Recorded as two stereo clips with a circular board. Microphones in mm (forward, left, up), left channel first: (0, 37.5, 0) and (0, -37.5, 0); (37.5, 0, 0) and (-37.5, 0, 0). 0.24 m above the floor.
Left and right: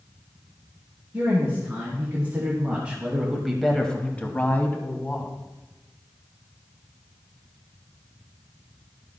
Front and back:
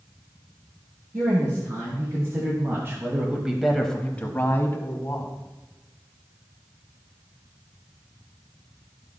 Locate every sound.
1.1 s a woman speaking: 150° right, 2.5 m; by 5.3 s 35° left, 1.8 m